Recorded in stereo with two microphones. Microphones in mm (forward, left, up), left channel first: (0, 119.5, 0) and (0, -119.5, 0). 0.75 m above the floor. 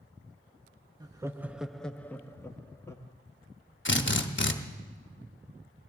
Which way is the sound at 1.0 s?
15° right (ahead or behind).